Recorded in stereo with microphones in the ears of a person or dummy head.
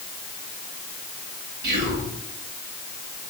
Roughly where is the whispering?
Right.